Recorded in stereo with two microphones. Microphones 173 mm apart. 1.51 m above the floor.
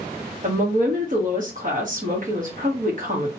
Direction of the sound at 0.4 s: 50° right (ahead or behind).